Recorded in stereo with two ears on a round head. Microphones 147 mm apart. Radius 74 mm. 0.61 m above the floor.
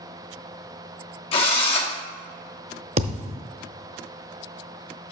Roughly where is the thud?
Right.